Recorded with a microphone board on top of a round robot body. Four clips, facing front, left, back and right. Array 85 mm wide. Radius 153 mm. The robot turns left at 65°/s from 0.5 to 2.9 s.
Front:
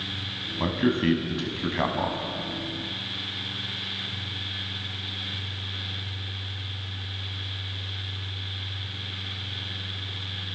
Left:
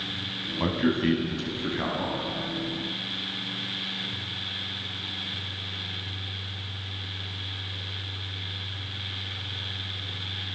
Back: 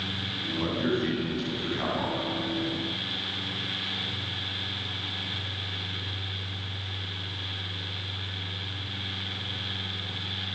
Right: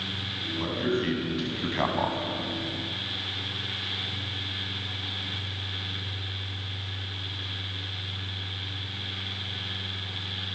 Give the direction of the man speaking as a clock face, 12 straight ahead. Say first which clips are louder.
Left 3 dB, front 4 dB; 11 o'clock.